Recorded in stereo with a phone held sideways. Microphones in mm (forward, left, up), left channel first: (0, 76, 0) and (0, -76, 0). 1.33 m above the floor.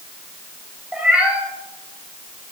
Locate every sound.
0.9 s a cat meowing: 10° right (ahead or behind), 2 m